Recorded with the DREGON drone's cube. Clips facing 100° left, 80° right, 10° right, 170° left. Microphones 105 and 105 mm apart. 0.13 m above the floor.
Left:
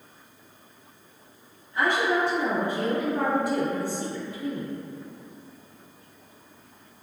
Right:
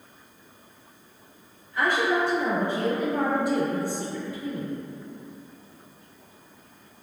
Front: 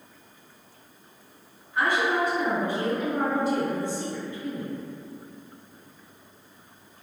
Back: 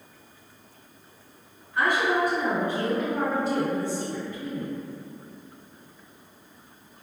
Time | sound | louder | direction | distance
1.7 | a woman speaking | even, back 1 dB | 60° left | 1.9 m